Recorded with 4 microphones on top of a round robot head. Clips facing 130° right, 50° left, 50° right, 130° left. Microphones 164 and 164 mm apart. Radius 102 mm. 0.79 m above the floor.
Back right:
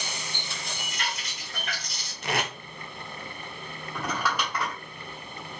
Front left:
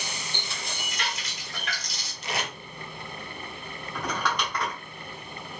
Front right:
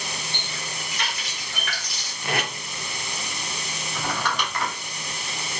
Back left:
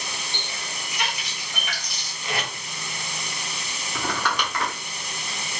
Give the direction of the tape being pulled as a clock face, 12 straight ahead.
3 o'clock.